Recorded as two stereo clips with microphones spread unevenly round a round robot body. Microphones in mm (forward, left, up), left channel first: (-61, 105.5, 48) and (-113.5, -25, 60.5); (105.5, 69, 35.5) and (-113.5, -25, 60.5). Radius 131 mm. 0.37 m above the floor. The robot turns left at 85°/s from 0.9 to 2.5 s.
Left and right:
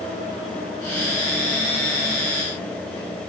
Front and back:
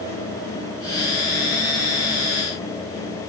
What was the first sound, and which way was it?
Only background noise.